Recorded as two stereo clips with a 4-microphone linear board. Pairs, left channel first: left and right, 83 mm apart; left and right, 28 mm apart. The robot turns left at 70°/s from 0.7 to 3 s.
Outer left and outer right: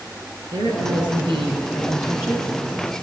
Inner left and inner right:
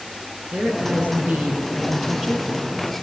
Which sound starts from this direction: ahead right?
A woman speaking, at 0.5 s.